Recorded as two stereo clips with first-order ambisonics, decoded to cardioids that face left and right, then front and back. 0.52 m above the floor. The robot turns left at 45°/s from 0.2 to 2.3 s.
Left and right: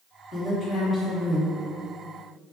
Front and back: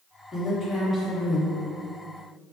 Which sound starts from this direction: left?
A woman speaking, at 0.3 s.